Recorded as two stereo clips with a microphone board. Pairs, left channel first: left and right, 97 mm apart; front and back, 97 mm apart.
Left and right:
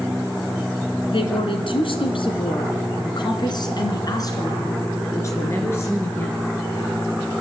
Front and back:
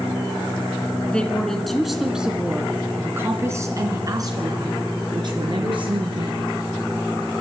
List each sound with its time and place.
1.1 s a woman speaking: 80° left, 3 m; by 6.4 s 155° left, 4.5 m